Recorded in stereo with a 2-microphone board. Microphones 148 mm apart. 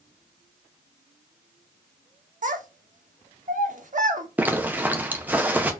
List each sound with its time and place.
2.4 s a child speaking: 60° right (ahead or behind), 0.8 m
4.4 s a zipper: 10° right (ahead or behind), 0.6 m